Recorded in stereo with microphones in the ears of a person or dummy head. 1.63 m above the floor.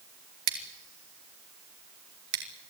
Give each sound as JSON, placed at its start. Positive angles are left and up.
{"t": 0.5, "sound": "scissors", "side_deg": -55, "distance_m": 3.0}